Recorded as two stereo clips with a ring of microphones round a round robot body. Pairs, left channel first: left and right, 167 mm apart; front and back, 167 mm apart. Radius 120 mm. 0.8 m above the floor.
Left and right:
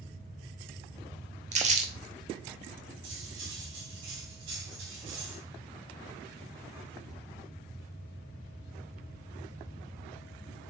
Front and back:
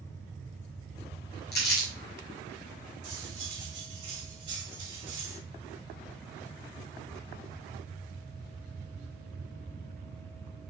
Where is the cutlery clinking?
120° right, 3 m.